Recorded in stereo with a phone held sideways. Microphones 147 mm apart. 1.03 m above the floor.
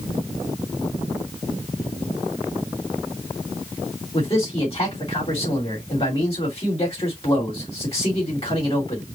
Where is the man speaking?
40° left (ahead or behind), 2.5 m.